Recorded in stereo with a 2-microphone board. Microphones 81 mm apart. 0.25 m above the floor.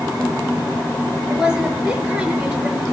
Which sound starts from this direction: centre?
A woman speaking, at 1.3 s.